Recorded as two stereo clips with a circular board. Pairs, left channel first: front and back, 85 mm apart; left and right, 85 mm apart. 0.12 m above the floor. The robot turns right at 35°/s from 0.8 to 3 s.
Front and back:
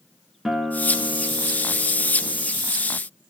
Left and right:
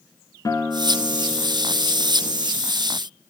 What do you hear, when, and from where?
0.5 s a guitar: 95° left, 0.9 m; by 2.5 s 155° left, 0.9 m